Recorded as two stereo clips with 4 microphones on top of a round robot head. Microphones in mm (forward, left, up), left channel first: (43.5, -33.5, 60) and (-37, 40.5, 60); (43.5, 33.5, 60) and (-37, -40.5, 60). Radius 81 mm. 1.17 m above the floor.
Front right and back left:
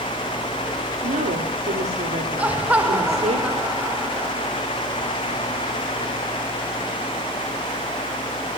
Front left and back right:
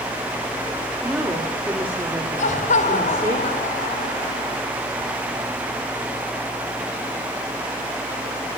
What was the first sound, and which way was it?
A woman speaking, 140° left.